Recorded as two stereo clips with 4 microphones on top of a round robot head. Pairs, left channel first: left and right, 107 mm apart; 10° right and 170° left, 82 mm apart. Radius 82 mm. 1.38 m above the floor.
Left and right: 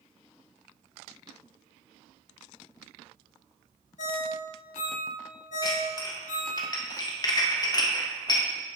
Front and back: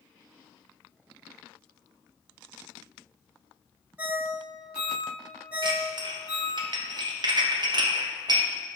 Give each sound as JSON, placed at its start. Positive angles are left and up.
{"t": 4.0, "sound": "a ringtone", "azimuth_deg": 100, "distance_m": 1.6}
{"t": 5.6, "sound": "dishes clattering", "azimuth_deg": 140, "distance_m": 1.1}